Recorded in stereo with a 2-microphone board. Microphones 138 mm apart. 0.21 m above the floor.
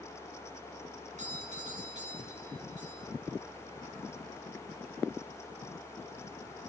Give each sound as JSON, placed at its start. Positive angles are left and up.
{"t": 1.2, "sound": "a doorbell", "side_deg": -60, "distance_m": 4.5}